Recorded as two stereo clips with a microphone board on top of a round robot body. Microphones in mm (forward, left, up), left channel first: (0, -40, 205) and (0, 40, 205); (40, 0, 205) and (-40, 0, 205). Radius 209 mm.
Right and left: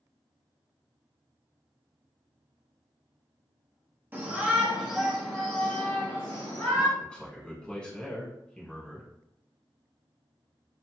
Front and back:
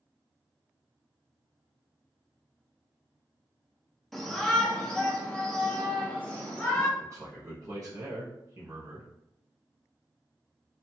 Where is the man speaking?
160° right, 1.4 m.